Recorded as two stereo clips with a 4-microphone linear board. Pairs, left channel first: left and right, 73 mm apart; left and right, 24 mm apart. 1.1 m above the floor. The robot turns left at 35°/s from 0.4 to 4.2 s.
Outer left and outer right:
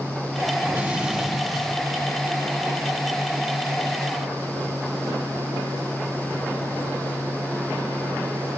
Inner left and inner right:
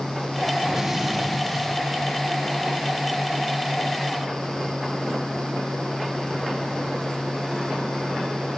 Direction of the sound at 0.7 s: 150° right.